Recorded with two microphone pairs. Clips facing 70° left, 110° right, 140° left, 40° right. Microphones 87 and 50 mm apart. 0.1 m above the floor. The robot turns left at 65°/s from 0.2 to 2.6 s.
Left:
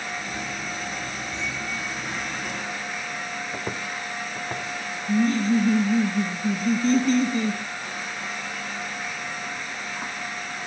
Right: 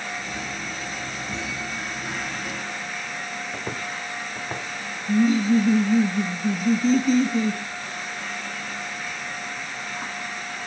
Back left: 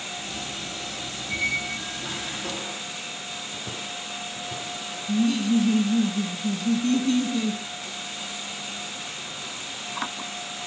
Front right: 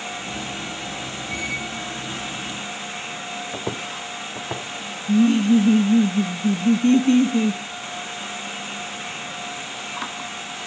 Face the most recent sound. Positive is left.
turn(degrees=-30)